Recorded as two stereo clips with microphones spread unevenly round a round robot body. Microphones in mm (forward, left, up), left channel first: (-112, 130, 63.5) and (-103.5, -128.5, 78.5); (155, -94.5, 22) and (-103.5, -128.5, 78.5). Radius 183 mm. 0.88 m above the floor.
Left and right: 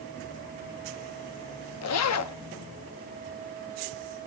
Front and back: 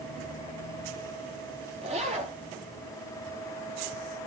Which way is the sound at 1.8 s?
115° left.